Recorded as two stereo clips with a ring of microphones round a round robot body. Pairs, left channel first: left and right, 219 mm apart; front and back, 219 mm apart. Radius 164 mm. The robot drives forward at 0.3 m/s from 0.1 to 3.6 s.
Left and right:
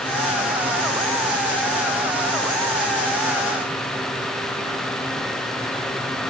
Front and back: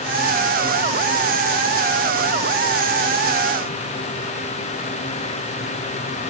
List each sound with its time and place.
Only background noise.